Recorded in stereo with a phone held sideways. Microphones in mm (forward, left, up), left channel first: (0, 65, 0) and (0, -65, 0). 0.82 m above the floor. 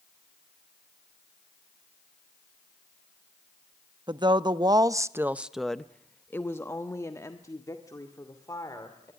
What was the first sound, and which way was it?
A woman speaking, 35° right (ahead or behind).